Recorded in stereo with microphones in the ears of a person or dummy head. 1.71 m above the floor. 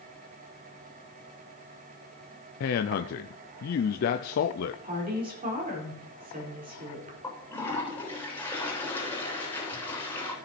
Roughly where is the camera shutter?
I don't hear a camera shutter.